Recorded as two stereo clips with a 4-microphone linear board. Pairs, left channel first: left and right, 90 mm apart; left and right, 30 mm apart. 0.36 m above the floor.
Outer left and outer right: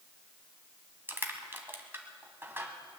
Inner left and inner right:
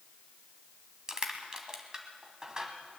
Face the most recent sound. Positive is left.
turn(degrees=-25)  # may be behind; listen again after turning